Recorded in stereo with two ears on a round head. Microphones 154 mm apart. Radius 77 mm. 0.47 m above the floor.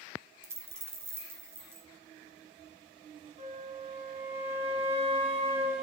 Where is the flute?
35° right (ahead or behind), 1.5 m.